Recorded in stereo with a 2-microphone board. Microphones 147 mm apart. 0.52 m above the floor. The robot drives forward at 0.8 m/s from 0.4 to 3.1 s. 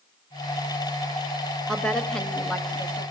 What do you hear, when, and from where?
1.7 s a woman speaking: 5° left (ahead or behind), 1.8 m